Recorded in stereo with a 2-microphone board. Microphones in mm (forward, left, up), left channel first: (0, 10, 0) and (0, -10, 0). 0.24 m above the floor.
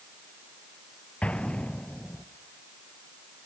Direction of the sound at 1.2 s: 85° left.